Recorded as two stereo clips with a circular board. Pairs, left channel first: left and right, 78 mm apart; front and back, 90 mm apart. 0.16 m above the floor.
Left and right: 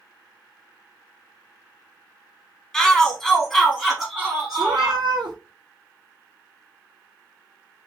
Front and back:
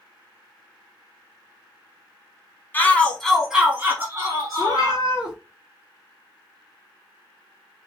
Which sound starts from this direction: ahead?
A shout, at 2.7 s.